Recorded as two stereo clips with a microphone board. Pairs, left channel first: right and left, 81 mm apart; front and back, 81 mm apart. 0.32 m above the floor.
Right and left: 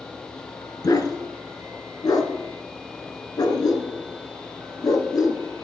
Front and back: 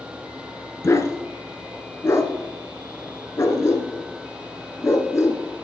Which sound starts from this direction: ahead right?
A dog barking, at 0.8 s.